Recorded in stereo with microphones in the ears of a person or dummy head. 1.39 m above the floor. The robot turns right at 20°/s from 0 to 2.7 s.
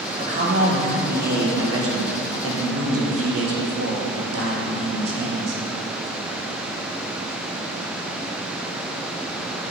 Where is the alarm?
I don't hear an alarm.